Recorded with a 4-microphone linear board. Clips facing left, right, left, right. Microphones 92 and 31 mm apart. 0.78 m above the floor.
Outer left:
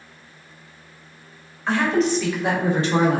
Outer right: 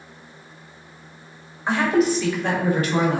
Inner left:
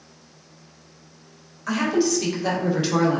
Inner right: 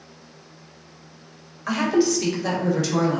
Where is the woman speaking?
15° right (ahead or behind), 1.1 m; by 3.2 s 45° left (ahead or behind), 0.7 m.